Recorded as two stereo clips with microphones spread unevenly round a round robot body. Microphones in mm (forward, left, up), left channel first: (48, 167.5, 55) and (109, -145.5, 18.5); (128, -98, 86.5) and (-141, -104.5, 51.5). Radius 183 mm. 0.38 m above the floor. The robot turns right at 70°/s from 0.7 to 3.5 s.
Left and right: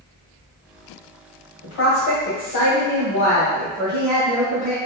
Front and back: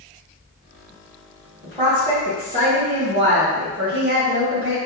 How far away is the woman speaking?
About 1.9 m.